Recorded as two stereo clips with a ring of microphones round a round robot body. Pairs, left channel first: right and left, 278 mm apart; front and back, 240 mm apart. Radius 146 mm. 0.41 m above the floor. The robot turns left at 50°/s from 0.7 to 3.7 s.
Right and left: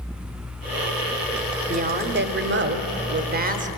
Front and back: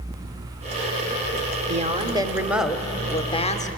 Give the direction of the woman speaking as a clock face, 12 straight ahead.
7 o'clock.